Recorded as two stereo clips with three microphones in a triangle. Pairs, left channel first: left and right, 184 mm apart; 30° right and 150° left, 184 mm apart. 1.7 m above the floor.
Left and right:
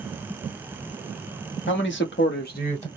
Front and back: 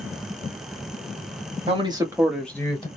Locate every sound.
1.7 s a man speaking: 90° left, 1.4 m; by 2.9 s 35° left, 1.1 m